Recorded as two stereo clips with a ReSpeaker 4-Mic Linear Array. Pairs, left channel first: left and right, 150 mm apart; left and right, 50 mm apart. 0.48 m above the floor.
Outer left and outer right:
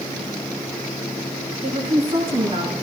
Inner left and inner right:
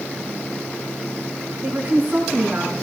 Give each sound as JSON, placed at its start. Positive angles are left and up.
{"t": 1.6, "sound": "a woman speaking", "side_deg": -35, "distance_m": 5.0}